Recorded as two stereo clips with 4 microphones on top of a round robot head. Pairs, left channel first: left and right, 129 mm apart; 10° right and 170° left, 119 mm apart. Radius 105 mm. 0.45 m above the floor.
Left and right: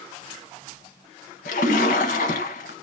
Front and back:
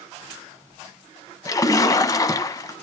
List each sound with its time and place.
1.4 s a splash: 50° left, 0.6 m